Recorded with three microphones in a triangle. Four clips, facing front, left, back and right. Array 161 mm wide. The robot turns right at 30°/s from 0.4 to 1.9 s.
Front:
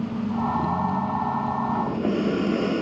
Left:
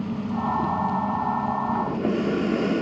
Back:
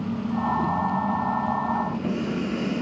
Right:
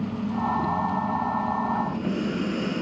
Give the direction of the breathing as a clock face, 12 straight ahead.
10 o'clock.